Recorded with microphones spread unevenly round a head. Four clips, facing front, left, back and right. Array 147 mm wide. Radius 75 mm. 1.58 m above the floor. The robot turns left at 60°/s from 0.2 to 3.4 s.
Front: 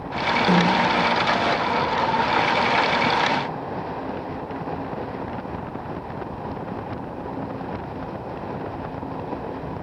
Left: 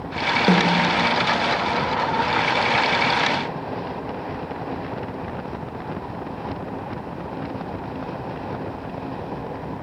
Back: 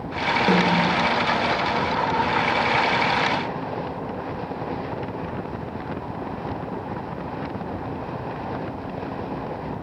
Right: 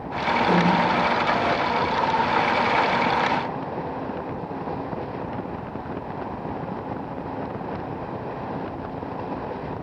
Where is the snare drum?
95° left, 0.6 m; by 0.8 s 80° left, 0.6 m.